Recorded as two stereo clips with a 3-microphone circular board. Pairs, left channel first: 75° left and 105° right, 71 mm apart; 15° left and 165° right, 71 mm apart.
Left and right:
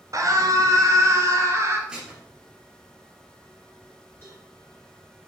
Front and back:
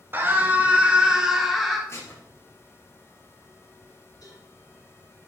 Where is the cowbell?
20° left, 4 m.